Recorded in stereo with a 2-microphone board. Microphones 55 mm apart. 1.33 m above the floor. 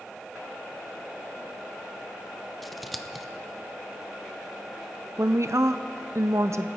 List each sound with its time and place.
2.6 s scissors: centre (ahead or behind), 0.6 m
5.2 s a woman speaking: 65° right (ahead or behind), 0.6 m